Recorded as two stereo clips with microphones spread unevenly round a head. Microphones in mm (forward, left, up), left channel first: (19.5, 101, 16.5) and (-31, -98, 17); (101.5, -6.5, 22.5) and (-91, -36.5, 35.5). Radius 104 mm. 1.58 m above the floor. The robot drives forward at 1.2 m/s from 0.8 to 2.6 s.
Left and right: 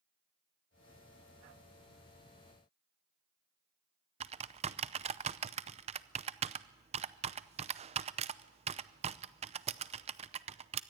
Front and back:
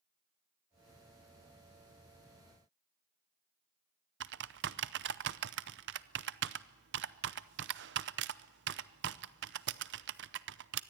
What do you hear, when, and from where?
4.2 s typing on a keyboard: 160° right, 0.6 m